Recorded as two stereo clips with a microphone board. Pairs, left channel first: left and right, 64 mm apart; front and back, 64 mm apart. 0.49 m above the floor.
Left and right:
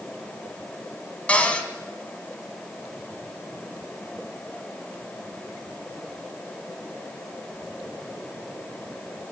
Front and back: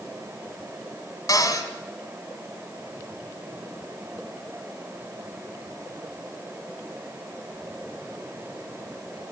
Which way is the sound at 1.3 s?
20° left.